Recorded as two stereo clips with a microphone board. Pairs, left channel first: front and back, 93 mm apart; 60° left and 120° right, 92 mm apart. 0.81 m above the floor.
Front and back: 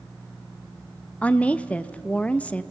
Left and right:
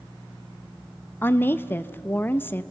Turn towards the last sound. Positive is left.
turn(degrees=50)